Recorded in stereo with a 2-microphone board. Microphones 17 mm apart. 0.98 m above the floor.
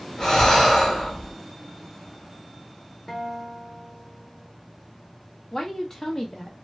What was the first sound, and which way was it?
Breathing, 30° left (ahead or behind).